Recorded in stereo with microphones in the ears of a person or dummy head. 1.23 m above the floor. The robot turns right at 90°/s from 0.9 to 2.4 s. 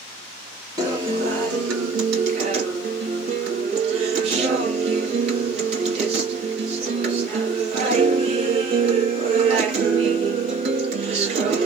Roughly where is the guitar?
Behind.